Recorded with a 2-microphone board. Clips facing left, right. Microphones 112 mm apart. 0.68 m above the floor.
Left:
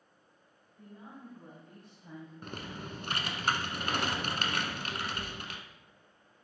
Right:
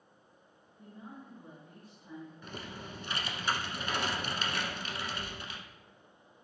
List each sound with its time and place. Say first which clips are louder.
0.8 s a woman speaking: even; 80° left, 4 m; by 2.3 s 70° left (ahead or behind), 3 m
2.4 s typing on a keyboard: left 2 dB; 55° left (ahead or behind), 1.0 m